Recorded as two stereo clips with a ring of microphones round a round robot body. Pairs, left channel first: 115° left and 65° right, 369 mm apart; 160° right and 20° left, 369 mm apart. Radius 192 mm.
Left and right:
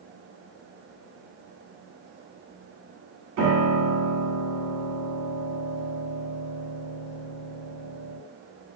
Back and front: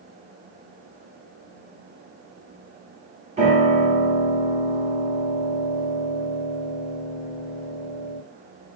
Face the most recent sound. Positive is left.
turn(degrees=-45)